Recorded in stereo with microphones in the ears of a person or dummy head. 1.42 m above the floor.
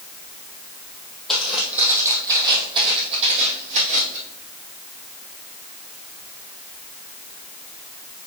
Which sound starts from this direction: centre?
Footsteps, at 1.3 s.